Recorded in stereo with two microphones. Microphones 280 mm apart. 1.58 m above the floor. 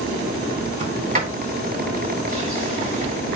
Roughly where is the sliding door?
Right.